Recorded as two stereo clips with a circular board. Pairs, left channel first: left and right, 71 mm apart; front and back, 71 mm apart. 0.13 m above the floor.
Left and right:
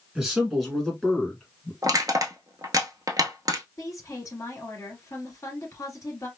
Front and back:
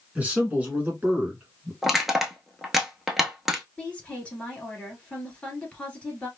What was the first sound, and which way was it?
A man speaking, 155° right.